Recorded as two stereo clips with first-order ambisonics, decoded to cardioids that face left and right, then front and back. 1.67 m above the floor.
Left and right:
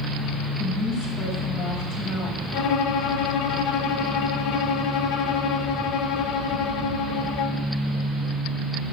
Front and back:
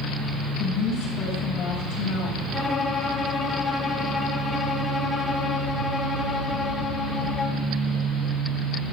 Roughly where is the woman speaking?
Ahead left.